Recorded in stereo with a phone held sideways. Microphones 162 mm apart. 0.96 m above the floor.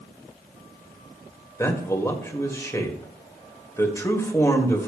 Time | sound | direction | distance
1.6 | a man speaking | 20° left (ahead or behind) | 1.7 m